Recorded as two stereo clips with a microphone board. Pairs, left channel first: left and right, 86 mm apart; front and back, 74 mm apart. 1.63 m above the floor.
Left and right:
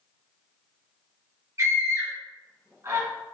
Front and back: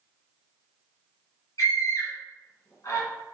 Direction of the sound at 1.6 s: 40° right.